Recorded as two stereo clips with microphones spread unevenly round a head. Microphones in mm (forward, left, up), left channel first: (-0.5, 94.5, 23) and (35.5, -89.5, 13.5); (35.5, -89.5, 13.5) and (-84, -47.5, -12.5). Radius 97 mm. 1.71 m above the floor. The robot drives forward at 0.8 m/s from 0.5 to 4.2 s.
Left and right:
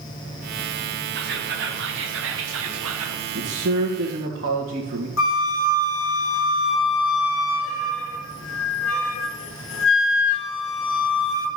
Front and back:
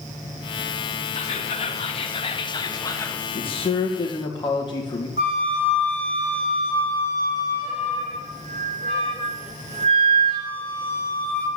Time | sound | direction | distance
1.1 | whispering | 45° right | 2.5 m
3.4 | a man speaking | 60° right | 2.5 m
5.2 | a flute | 95° left | 1.5 m